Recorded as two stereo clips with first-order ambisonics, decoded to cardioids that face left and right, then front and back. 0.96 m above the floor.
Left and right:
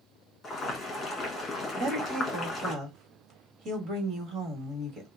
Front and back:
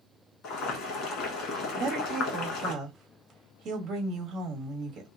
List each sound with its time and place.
0.4 s boiling: 25° left, 1.2 m
1.8 s a woman speaking: 130° right, 1.3 m